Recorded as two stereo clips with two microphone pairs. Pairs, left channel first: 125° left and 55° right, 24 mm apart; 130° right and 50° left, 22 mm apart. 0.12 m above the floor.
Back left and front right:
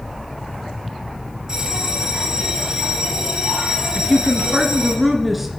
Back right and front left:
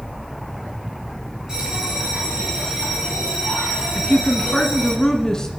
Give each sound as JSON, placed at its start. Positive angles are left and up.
{"t": 1.5, "sound": "a bell", "azimuth_deg": 5, "distance_m": 2.5}
{"t": 4.0, "sound": "a woman speaking", "azimuth_deg": -130, "distance_m": 1.5}